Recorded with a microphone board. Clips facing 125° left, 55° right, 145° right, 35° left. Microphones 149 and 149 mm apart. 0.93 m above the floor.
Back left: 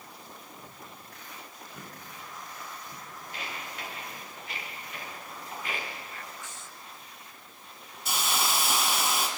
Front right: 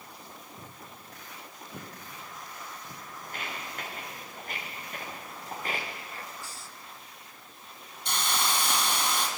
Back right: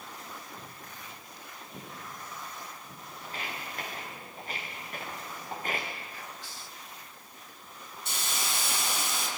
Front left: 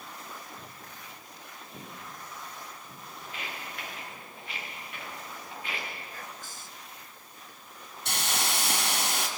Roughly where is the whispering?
Ahead.